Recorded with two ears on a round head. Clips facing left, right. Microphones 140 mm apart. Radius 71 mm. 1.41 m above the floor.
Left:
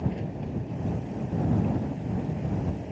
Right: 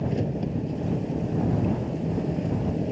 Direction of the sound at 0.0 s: 45° right (ahead or behind).